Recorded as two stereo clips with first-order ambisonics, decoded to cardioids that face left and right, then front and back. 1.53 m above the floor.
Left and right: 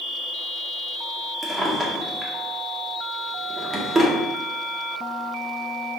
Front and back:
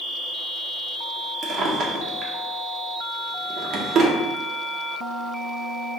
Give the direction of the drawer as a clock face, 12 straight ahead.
5 o'clock.